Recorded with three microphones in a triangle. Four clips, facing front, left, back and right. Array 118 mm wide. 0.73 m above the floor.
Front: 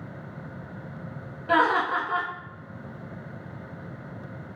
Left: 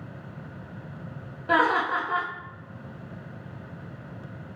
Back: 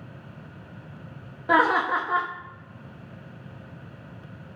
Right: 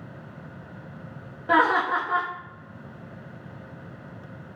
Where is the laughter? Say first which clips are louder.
Right 2 dB, back 1 dB; 160° right, 0.6 m.